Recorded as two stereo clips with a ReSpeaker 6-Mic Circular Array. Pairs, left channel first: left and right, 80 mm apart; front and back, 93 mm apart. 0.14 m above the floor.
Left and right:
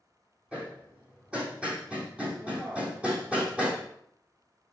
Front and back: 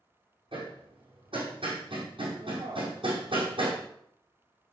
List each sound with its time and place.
0.5 s hammering: 165° right, 3.5 m